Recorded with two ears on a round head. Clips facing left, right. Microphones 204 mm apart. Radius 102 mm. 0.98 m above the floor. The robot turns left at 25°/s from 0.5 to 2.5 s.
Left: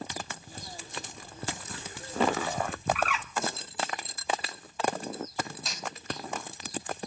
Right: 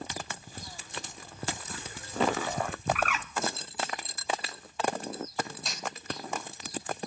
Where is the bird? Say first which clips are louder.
Left 1 dB; 40° right (ahead or behind), 1.0 m.